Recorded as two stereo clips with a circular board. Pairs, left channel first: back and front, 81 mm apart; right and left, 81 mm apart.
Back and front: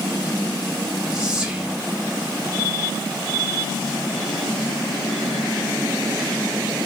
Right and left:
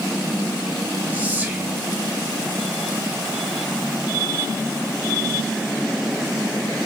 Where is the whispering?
60° left, 0.9 m.